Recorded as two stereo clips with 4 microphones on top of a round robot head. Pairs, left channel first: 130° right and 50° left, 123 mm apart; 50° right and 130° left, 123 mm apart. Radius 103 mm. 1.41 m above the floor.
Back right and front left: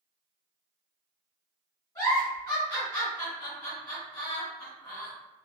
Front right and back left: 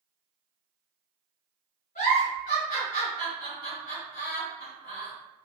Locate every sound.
1.9 s a giggle: 75° right, 1.4 m